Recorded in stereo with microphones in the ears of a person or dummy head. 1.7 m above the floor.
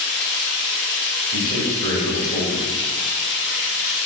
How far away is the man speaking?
About 2.5 m.